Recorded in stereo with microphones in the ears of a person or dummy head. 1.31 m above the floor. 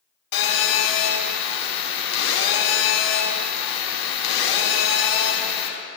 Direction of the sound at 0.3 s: 75° left (ahead or behind).